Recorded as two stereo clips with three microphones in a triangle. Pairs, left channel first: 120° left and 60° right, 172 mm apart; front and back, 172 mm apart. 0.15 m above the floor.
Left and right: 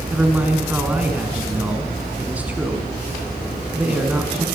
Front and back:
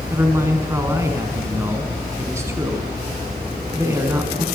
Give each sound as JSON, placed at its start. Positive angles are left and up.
{"t": 0.1, "sound": "a man speaking", "azimuth_deg": -130, "distance_m": 1.1}